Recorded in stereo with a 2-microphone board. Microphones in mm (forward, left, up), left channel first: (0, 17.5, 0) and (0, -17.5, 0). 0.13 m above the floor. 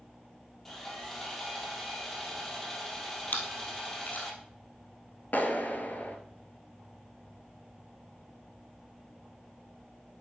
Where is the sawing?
10° left (ahead or behind), 3 m.